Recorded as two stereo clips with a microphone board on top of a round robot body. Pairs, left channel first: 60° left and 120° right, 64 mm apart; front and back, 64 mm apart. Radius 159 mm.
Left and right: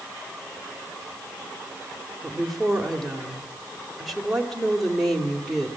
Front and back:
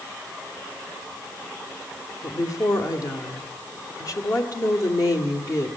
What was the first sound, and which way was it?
A woman speaking, 30° right.